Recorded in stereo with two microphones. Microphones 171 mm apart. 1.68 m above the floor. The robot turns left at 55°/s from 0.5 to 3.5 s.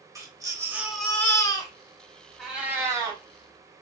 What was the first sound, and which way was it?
A baby crying, 155° right.